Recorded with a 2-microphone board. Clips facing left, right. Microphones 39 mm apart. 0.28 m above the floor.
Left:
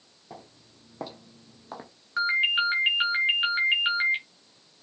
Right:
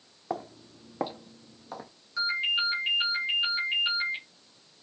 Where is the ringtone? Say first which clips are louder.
Left 4 dB; 55° left (ahead or behind), 1.6 m.